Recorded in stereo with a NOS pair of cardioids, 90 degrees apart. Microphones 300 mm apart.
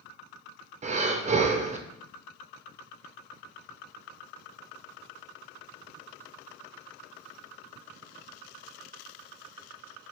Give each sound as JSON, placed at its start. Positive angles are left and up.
{"t": 0.8, "sound": "breathing", "azimuth_deg": -25, "distance_m": 0.6}